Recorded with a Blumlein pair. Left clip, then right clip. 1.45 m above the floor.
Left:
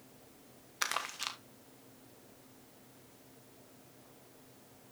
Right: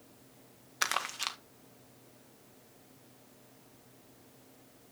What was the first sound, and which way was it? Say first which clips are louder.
Crumpling: right 3 dB; 10° right.